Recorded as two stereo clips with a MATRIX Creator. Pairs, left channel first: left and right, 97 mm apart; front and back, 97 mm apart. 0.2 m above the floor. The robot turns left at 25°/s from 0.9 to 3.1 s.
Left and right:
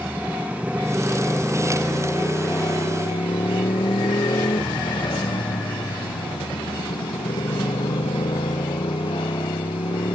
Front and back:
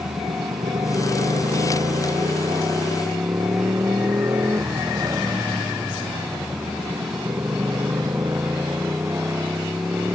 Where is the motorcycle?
165° right; by 10.2 s 115° left.